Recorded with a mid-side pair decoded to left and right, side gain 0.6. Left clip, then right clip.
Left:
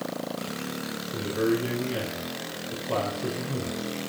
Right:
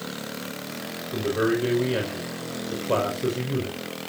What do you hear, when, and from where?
1.1 s a man speaking: 40° right, 5.5 m